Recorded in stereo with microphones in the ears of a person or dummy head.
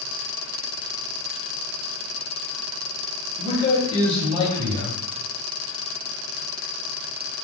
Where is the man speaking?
30° left (ahead or behind), 2.5 m.